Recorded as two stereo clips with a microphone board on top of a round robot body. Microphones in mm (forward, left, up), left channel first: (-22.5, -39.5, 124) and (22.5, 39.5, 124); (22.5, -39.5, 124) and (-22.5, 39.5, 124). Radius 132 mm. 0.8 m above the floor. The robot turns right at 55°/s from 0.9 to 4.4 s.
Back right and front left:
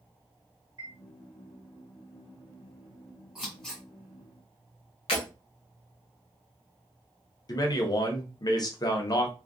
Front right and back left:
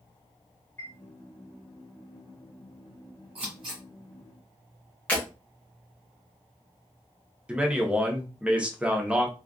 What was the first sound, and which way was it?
A chime, 10° left.